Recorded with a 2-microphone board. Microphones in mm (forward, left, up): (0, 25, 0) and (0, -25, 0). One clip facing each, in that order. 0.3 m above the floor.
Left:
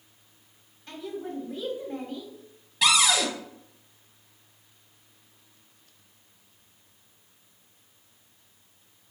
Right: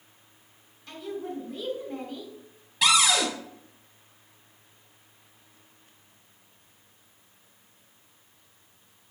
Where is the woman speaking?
20° left (ahead or behind), 1.9 m.